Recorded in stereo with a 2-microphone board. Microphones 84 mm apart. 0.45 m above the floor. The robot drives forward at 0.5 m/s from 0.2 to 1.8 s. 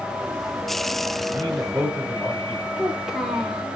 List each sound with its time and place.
1.3 s a man speaking: 35° right (ahead or behind), 2 m; by 2.7 s 30° right (ahead or behind), 2.5 m
2.8 s a child speaking: 5° right (ahead or behind), 0.9 m